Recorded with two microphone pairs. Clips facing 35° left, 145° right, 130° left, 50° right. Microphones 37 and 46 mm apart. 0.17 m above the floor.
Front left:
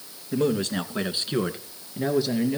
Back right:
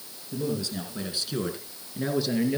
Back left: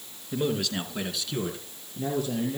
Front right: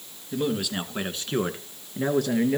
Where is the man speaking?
40° left, 2 m; by 2.6 s 60° right, 2.5 m.